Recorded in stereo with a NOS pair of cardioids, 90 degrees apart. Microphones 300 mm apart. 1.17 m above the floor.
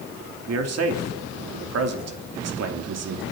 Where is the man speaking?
55° right, 2.5 m.